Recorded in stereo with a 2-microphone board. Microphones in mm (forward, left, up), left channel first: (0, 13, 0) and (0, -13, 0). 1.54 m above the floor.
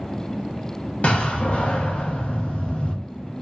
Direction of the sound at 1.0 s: 55° left (ahead or behind).